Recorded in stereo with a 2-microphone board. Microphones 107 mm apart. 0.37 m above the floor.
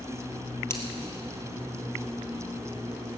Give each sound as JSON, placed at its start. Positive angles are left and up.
{"t": 0.7, "sound": "scissors", "side_deg": 25, "distance_m": 1.8}